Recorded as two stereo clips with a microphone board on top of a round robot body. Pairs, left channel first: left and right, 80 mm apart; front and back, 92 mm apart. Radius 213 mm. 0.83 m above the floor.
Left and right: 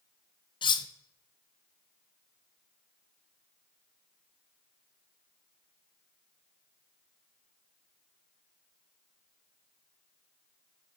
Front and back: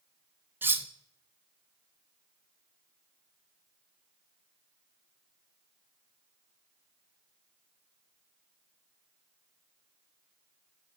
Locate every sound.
0.6 s cutlery clinking: 110° left, 0.6 m